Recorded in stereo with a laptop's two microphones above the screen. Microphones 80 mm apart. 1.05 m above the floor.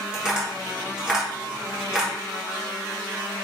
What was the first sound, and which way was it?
Tapping, 10° right (ahead or behind).